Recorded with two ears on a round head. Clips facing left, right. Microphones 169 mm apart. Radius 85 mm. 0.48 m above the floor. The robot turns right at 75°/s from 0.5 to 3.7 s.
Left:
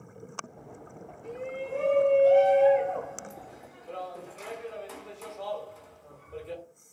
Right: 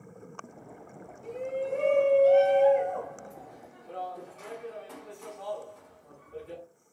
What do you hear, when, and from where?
1.2 s a shout: 125° right, 0.9 m; by 6.6 s 60° left, 0.9 m